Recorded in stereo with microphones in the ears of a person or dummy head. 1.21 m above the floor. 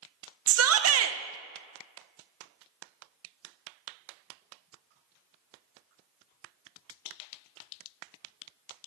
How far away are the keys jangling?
I don't hear keys jangling.